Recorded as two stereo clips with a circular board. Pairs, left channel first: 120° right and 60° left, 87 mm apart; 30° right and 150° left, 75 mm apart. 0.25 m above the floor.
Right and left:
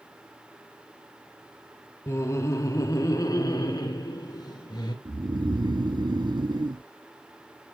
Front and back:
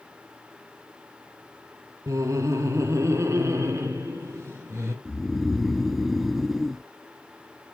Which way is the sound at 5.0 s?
60° left.